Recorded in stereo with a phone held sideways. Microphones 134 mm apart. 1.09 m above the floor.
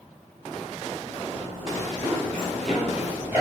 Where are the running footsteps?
30° left (ahead or behind), 2.0 m; by 3.4 s 20° right (ahead or behind), 1.3 m.